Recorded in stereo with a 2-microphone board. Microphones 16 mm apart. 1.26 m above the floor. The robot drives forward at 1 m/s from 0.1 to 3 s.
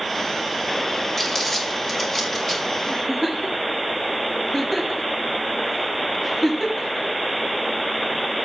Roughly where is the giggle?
Left.